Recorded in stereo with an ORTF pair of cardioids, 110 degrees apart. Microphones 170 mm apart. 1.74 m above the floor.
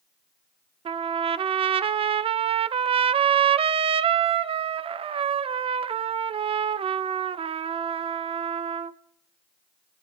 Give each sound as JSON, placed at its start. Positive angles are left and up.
{"t": 0.8, "sound": "a trumpet", "azimuth_deg": -35, "distance_m": 0.5}